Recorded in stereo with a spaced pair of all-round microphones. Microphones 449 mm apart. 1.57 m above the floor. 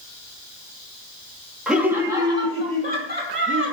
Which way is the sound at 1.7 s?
Centre (ahead or behind).